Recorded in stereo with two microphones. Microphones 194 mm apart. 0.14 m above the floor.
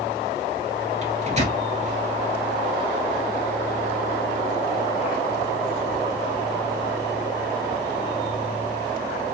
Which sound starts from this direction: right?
A microwave, at 1.0 s.